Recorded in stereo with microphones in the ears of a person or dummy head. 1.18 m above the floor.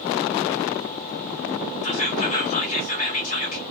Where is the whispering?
35° left (ahead or behind), 1.9 m.